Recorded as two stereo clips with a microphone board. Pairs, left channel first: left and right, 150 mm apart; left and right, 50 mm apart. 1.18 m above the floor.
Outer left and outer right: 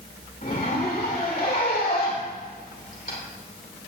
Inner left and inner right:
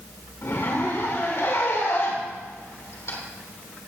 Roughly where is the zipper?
Left.